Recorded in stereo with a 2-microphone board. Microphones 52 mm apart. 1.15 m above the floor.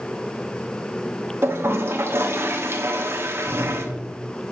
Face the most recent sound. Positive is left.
turn(degrees=-50)  # may be behind; listen again after turning